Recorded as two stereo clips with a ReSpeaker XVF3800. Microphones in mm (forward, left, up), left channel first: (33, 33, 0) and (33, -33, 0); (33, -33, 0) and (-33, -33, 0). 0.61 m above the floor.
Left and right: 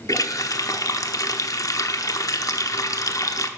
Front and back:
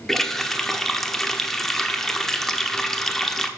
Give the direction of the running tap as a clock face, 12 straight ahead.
9 o'clock.